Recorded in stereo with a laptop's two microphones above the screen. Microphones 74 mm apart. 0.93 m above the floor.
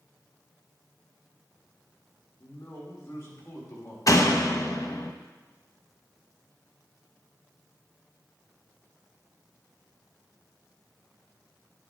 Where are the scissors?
I don't hear scissors.